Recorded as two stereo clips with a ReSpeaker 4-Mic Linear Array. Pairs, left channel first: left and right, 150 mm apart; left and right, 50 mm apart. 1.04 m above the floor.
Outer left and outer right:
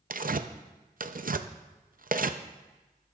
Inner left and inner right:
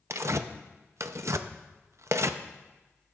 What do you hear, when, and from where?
0.1 s tearing paper: 65° right (ahead or behind), 0.5 m